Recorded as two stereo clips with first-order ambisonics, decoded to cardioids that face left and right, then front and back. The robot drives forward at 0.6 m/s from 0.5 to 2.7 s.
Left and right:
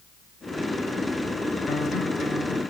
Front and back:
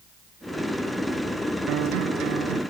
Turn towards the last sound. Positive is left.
turn(degrees=165)